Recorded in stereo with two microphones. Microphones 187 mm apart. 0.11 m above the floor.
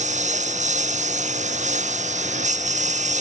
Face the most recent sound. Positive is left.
turn(degrees=-40)  # may be behind; listen again after turning